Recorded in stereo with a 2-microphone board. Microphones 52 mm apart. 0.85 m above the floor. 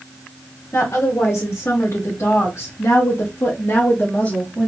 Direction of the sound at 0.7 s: 60° left (ahead or behind).